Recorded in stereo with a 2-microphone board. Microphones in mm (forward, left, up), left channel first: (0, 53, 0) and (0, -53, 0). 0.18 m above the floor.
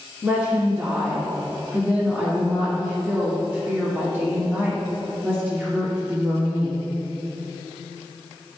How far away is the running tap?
I don't hear a running tap.